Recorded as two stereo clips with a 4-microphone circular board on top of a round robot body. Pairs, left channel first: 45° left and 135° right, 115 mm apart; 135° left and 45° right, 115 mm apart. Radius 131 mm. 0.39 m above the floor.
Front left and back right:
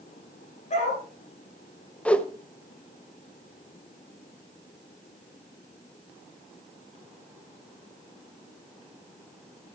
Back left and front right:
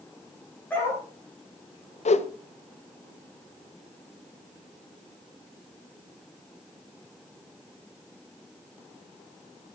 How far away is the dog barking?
About 7.5 m.